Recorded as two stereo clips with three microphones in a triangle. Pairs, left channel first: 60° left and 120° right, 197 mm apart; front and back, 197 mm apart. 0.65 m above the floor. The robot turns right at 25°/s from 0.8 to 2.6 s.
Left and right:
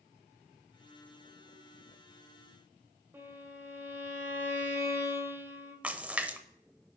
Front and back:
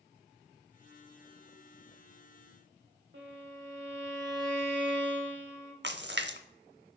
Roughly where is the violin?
Behind.